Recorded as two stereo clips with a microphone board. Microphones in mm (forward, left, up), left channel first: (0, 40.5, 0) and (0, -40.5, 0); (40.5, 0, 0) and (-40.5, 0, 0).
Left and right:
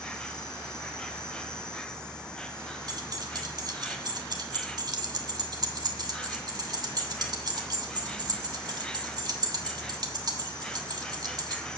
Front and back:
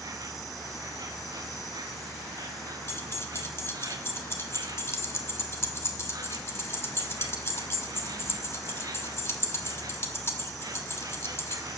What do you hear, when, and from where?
0.0 s an insect: 165° left, 0.9 m
2.9 s keys jangling: 55° right, 1.1 m